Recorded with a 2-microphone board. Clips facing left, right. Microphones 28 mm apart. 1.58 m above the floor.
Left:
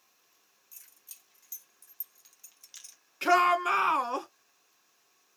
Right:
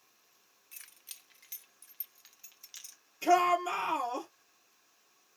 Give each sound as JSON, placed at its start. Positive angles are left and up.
{"t": 0.7, "sound": "keys jangling", "side_deg": -50, "distance_m": 1.2}
{"t": 3.2, "sound": "a shout", "side_deg": 80, "distance_m": 1.8}